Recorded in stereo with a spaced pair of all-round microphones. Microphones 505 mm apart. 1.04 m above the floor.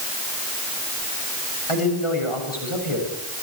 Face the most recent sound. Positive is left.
turn(degrees=75)  # may be behind; listen again after turning